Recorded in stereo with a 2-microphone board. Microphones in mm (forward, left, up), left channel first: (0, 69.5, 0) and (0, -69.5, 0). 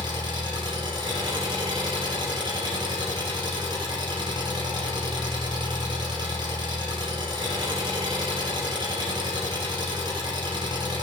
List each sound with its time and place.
0.0 s an engine running: 35° right (ahead or behind), 2.5 m